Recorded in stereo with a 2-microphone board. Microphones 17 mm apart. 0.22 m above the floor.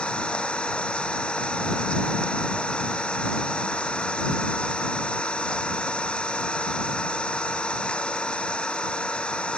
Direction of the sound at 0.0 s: 80° left.